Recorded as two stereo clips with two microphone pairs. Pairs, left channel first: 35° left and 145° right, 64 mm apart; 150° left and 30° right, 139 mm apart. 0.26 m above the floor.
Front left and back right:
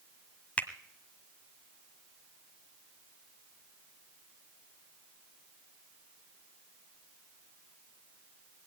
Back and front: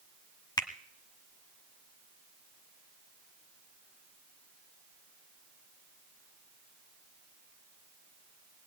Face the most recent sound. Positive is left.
turn(degrees=100)